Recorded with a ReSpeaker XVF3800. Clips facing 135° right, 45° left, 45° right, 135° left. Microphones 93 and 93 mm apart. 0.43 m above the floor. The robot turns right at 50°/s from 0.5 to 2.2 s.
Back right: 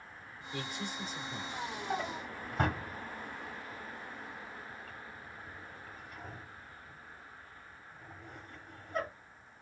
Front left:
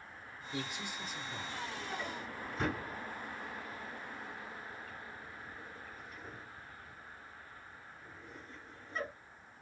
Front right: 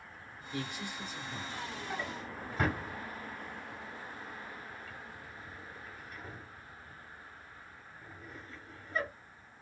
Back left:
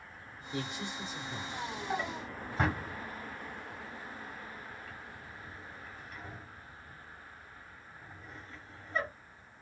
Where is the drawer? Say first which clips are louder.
Back right 4 dB, back left 4 dB; 175° left, 1.4 m; by 9.1 s 170° right, 1.4 m.